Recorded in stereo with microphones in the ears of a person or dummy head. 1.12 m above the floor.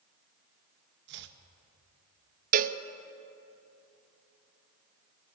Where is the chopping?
60° right (ahead or behind), 1.5 m.